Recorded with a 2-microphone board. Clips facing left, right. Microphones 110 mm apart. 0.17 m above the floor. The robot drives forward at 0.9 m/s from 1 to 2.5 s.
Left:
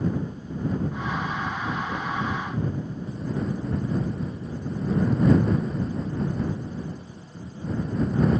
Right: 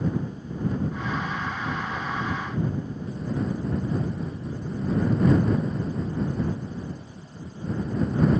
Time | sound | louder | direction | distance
1.9 | knocking | left 1 dB | 45° left (ahead or behind) | 2.5 m